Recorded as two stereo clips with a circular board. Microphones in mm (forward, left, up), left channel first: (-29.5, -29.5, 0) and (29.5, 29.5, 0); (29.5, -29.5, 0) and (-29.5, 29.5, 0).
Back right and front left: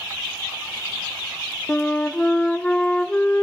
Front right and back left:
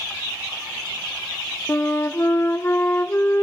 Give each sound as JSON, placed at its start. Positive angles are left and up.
{"t": 1.7, "sound": "a flute", "azimuth_deg": -75, "distance_m": 0.7}